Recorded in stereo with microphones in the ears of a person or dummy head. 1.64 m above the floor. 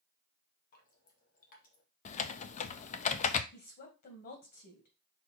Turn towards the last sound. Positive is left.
turn(degrees=50)  # may be behind; listen again after turning